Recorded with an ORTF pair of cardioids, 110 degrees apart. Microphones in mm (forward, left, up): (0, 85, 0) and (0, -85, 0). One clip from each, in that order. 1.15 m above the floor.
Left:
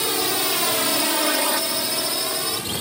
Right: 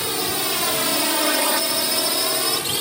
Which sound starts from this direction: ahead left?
A drone, at 0.0 s.